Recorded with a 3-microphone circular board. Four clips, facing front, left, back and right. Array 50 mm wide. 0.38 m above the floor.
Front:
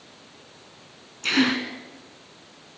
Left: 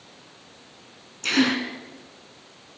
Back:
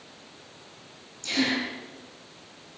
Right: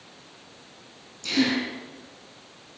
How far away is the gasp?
About 2.5 m.